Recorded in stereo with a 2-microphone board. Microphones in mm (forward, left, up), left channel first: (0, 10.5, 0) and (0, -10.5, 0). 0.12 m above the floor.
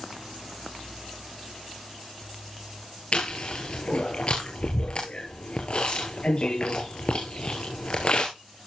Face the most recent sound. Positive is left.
turn(degrees=45)  # may be behind; listen again after turning